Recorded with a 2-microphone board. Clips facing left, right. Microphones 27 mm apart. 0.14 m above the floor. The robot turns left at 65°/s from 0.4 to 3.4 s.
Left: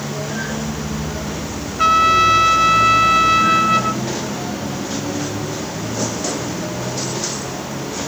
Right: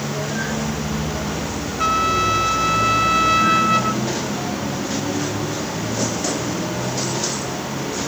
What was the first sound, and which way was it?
A trumpet, 125° left.